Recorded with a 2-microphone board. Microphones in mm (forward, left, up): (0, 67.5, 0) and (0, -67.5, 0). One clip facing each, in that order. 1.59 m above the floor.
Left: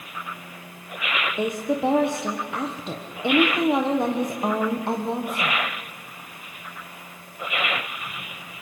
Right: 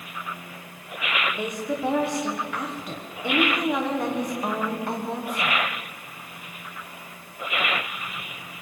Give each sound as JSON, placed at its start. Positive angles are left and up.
{"t": 1.4, "sound": "a woman speaking", "side_deg": 25, "distance_m": 1.4}